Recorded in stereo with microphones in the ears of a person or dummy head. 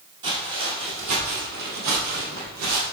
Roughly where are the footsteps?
Right.